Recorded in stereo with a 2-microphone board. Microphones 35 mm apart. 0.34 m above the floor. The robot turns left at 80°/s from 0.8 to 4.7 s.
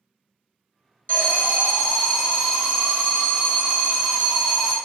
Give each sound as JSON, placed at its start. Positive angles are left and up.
{"t": 1.1, "sound": "an alarm", "azimuth_deg": 95, "distance_m": 2.0}